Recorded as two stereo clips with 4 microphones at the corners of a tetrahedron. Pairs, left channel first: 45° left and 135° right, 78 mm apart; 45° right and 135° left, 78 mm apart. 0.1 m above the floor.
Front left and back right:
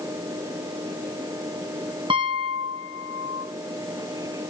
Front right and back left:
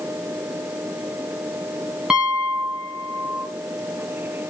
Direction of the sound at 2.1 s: 145° right.